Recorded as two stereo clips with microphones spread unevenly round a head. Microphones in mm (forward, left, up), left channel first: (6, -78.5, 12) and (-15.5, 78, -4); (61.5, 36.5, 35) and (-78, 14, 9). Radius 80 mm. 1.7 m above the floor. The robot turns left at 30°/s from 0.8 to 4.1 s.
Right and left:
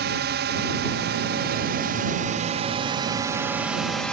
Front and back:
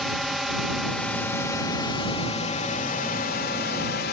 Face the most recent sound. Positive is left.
turn(degrees=0)